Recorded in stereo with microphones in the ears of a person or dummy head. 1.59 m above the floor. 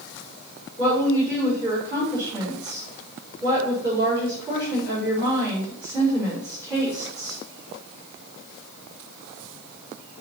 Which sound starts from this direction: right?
A woman speaking, at 0.8 s.